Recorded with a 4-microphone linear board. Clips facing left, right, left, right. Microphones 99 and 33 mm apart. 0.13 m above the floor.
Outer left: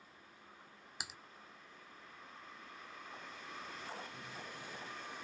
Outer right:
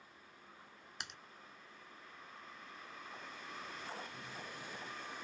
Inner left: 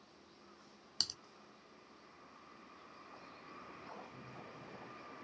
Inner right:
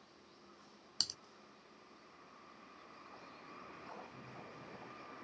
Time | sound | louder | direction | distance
1.0 | typing on a keyboard | outer left 1 dB, even | 5° left (ahead or behind) | ?